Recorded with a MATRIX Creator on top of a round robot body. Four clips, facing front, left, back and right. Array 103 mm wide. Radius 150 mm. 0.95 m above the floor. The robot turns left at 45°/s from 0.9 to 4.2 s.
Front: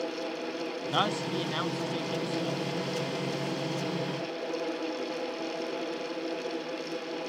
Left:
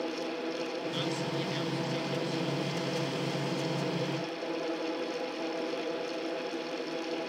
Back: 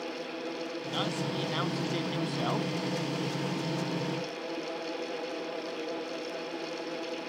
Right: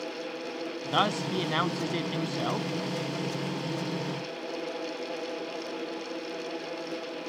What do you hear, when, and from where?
0.9 s a man speaking: 60° right; by 2.7 s 140° right